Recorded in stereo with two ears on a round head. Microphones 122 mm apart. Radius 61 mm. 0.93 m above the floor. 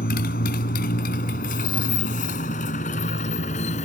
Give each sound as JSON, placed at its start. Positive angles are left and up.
{"t": 0.0, "sound": "a motorcycle", "side_deg": 80}